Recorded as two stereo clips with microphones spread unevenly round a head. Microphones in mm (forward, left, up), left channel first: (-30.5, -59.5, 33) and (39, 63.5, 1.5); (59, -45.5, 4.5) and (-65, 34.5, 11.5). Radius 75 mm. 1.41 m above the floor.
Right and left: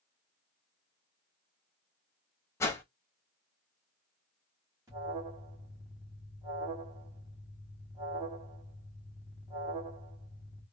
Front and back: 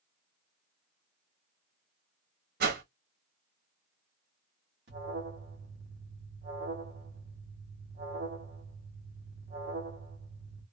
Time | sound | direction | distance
2.6 | a whoosh | 165° left | 1.0 m
4.9 | an alarm | 135° left | 2 m